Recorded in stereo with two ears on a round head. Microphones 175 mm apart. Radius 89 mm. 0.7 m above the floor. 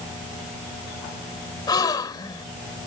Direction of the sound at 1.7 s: 20° left (ahead or behind).